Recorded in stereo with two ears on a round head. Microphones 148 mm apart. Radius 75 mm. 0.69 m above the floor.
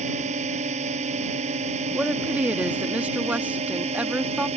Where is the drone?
40° right (ahead or behind).